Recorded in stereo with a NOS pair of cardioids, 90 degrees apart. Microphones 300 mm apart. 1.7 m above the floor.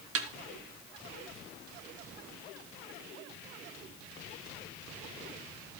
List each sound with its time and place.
0.1 s a snare drum: 50° right, 1.6 m